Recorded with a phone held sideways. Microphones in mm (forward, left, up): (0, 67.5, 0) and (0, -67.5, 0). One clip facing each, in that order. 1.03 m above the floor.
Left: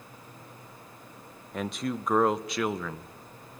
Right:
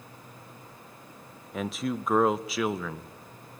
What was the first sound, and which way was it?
A man speaking, centre (ahead or behind).